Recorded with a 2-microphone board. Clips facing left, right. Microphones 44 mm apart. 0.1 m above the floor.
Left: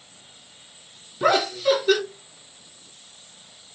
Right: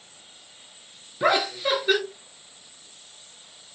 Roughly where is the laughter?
Right.